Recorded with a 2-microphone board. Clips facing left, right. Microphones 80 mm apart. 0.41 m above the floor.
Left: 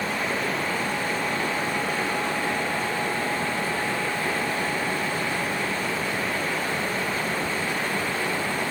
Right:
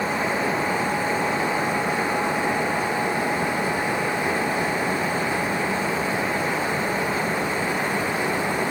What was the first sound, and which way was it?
Only background noise.